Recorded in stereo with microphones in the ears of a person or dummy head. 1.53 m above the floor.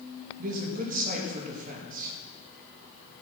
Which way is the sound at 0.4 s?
45° right (ahead or behind).